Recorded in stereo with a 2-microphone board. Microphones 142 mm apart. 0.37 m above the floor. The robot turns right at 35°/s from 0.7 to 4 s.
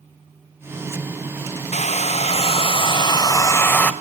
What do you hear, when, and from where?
1.7 s a hair dryer: 90° left, 1.2 m; by 3.9 s 170° left, 1.2 m